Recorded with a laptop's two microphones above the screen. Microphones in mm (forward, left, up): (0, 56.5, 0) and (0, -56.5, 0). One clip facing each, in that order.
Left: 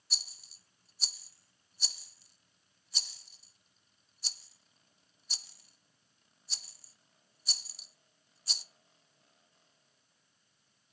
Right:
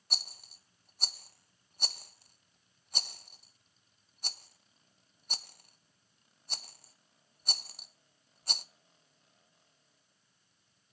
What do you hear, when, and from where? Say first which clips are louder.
0.1 s a rattle: right 6 dB; 55° right (ahead or behind), 0.7 m